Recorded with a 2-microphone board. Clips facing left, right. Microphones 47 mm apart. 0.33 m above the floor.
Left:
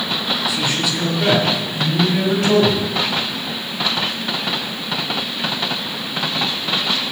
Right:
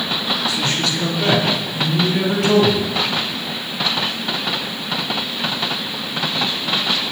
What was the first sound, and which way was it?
A man speaking, 15° left (ahead or behind).